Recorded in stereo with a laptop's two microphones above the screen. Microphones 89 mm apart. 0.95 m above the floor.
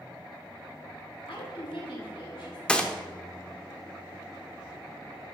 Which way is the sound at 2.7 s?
10° left (ahead or behind).